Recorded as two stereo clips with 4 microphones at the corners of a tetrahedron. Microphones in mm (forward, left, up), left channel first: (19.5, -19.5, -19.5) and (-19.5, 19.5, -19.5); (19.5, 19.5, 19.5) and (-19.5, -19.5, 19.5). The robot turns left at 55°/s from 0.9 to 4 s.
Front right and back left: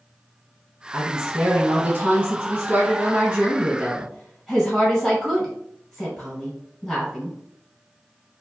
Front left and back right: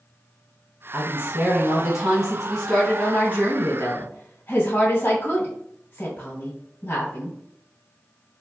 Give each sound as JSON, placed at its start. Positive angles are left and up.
{"t": 0.9, "sound": "a woman speaking", "azimuth_deg": -150, "distance_m": 1.9}